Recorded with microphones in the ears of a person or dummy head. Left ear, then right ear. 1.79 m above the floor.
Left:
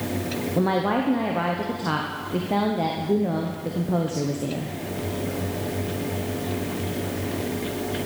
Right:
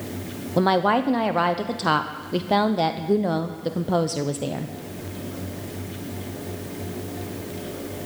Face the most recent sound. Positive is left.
turn(degrees=-50)  # may be behind; listen again after turning